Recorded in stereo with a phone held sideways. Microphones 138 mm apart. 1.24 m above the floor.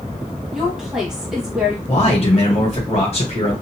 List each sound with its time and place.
0.5 s a woman speaking: centre (ahead or behind), 1.1 m
1.9 s a man speaking: 50° left (ahead or behind), 1.4 m